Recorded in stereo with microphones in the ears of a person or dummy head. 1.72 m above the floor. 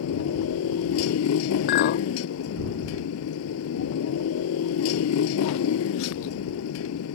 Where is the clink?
65° left (ahead or behind).